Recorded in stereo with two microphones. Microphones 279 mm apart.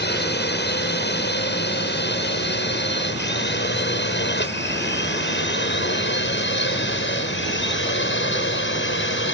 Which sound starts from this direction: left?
A drone, at 0.0 s.